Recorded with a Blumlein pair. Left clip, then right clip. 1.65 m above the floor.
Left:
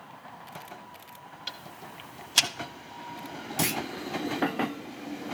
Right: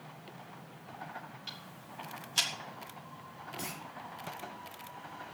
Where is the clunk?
35° left, 0.6 m.